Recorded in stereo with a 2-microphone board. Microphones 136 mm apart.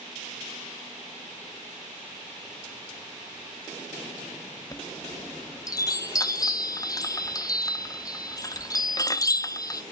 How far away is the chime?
About 0.6 m.